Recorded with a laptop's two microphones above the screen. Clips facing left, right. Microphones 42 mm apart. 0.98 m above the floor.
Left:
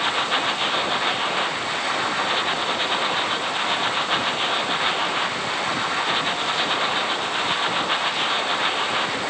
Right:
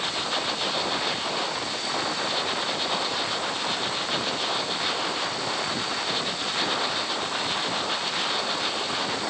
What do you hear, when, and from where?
0.0 s a machine running: 35° left (ahead or behind)